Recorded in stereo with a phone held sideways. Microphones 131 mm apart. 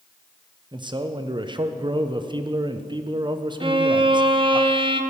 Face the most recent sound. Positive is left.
turn(degrees=-35)  # may be behind; listen again after turning